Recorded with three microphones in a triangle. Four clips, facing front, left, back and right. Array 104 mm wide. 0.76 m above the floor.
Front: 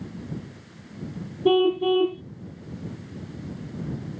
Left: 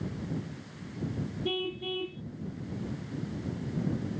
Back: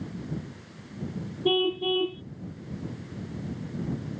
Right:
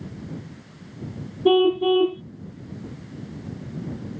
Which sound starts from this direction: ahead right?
A car horn, at 1.4 s.